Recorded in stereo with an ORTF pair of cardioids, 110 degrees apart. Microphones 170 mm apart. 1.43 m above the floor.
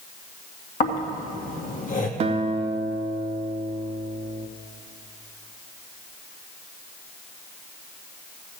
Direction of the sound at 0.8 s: 50° left.